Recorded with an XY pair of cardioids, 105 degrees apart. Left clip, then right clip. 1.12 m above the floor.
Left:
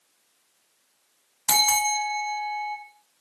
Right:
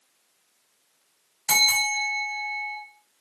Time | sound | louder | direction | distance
1.5 | a bell | right 1 dB | 55° left | 1.6 m